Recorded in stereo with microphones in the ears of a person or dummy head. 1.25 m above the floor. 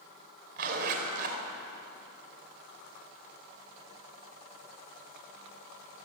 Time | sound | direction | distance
0.6 | a zipper | 50° right (ahead or behind) | 4.5 m